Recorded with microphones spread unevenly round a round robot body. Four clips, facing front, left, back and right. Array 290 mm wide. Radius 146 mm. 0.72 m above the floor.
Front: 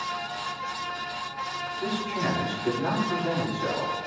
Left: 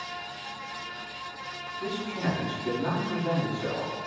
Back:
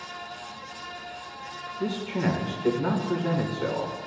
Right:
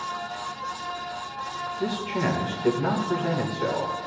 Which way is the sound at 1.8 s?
125° right.